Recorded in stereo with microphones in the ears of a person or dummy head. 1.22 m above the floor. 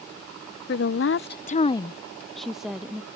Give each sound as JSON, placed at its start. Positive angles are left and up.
{"t": 0.7, "sound": "a woman speaking", "side_deg": 55}